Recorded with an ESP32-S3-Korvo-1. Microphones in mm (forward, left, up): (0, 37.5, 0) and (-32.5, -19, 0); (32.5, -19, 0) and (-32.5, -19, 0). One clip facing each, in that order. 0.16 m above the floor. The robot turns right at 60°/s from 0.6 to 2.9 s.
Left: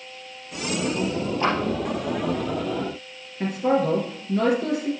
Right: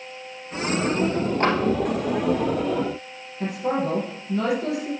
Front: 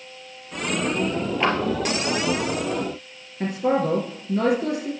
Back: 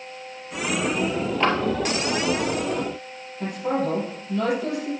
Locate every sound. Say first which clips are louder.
1.4 s a clap: right 1 dB, back 1 dB; 90° right, 2.5 m; by 1.6 s 80° right, 2.5 m
3.4 s a man speaking: left 3 dB, front 3 dB; 15° left, 2.5 m